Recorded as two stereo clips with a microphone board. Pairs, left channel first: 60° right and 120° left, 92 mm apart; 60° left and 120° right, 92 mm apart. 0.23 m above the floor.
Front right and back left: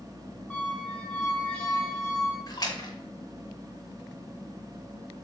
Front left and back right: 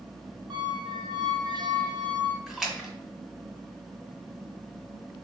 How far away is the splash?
About 2.0 m.